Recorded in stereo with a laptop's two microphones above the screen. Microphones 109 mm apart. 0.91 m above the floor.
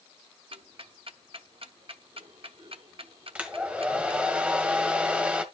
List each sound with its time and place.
0.5 s ticking: 60° right (ahead or behind), 0.8 m
3.4 s a hair dryer: 10° right (ahead or behind), 1.4 m